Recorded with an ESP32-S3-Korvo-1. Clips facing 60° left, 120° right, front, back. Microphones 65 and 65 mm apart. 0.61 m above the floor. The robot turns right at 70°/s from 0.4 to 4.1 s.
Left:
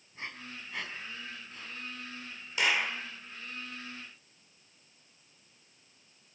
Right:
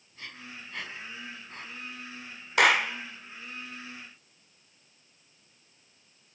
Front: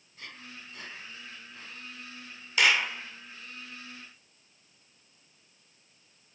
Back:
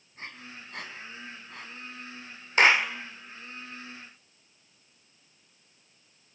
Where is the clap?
130° right, 1.6 m; by 2.9 s 105° right, 1.6 m.